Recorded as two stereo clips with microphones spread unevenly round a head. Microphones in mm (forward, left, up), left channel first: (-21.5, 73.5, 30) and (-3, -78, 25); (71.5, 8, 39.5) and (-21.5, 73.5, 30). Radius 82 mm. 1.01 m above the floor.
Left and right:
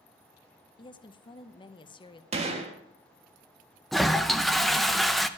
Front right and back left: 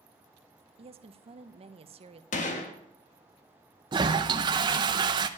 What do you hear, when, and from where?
0.8 s a woman speaking: 155° left, 0.7 m
2.3 s a gunshot: 30° right, 1.3 m
3.9 s a toilet flushing: 170° right, 0.6 m